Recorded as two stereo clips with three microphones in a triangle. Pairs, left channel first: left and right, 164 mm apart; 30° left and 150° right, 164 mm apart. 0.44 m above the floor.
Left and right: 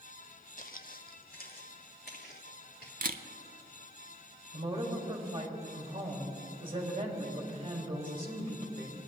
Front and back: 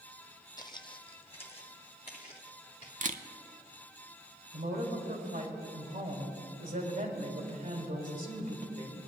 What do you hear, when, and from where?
0.6 s footsteps: 90° left, 0.7 m; by 2.9 s 75° left, 2.5 m
3.0 s a camera shutter: 115° right, 0.6 m
4.5 s a woman speaking: 140° right, 2 m